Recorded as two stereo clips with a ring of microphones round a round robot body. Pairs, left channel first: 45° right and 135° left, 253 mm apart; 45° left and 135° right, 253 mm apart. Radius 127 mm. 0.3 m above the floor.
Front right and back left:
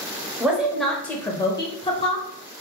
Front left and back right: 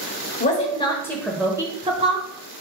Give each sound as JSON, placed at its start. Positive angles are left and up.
{"t": 0.4, "sound": "a woman speaking", "azimuth_deg": 55, "distance_m": 1.1}